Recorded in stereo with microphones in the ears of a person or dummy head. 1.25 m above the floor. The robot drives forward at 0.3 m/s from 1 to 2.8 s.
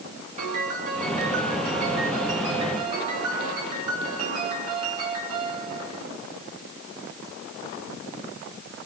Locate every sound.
0.4 s a piano: 45° right (ahead or behind), 3.5 m; by 6.1 s 40° right (ahead or behind), 4 m